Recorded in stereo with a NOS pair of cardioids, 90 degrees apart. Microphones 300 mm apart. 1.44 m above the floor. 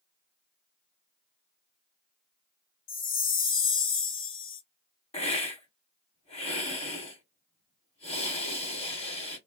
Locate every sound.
2.9 s a chime: 45° left, 0.7 m
5.1 s a hiss: 20° left, 1.2 m